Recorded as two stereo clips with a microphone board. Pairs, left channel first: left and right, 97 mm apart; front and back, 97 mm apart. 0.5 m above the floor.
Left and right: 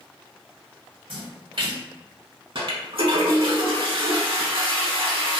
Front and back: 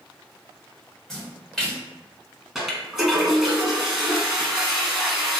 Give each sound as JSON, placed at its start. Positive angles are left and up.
{"t": 1.1, "sound": "a splash", "azimuth_deg": -85, "distance_m": 1.2}
{"t": 2.5, "sound": "a toilet flushing", "azimuth_deg": -95, "distance_m": 0.6}